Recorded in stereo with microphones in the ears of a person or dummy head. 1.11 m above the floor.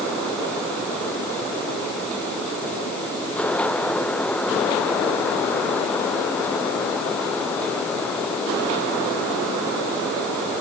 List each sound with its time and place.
Only background noise.